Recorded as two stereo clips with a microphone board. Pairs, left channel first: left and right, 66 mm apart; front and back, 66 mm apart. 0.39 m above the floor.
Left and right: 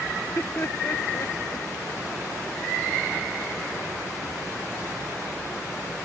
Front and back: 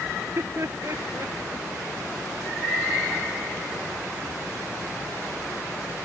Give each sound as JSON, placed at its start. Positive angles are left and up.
{"t": 0.1, "sound": "laughter", "azimuth_deg": 140}